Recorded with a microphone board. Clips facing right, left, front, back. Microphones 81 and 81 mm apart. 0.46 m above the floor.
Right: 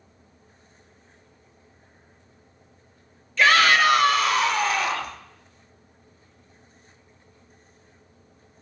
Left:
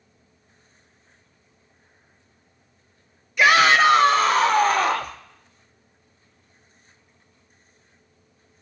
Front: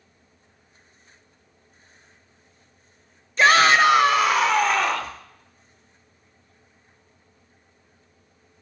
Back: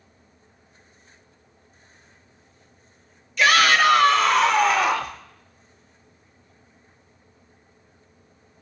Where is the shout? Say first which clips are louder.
Left 2 dB, front 2 dB; 25° left, 1.7 m; by 5.2 s 105° left, 2 m.